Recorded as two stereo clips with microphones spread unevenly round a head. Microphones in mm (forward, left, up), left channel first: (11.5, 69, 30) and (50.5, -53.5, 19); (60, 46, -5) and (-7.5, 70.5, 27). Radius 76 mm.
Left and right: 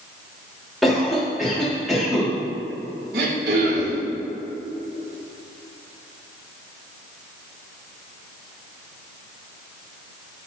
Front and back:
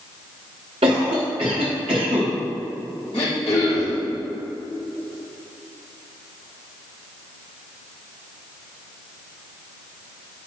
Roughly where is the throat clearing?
Right.